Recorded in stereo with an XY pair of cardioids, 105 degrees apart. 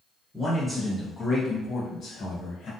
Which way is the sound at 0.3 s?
5° right.